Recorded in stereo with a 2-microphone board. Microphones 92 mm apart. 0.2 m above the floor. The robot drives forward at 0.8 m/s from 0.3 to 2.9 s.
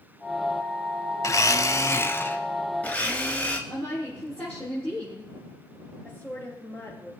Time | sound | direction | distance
1.2 | a blender | 35° left (ahead or behind) | 0.6 m
3.7 | a woman speaking | 25° left (ahead or behind) | 4 m
6.0 | a woman speaking | 20° left (ahead or behind) | 3.5 m